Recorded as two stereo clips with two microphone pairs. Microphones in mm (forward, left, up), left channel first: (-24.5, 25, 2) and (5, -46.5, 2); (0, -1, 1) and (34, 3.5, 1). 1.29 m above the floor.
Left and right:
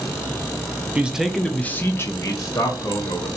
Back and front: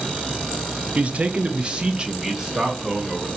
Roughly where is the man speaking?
Ahead.